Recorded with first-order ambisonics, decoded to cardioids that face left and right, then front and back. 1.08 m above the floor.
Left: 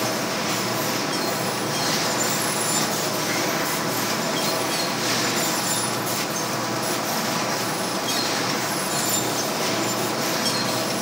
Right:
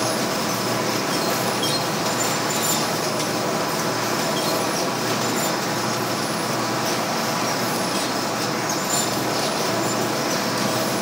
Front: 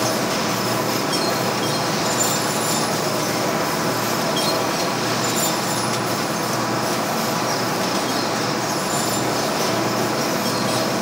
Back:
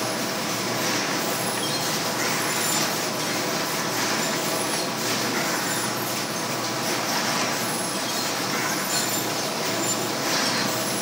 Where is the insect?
25° right.